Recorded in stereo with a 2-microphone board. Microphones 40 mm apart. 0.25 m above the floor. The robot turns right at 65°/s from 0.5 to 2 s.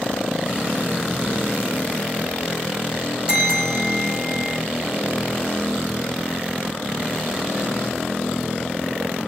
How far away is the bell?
About 1.2 m.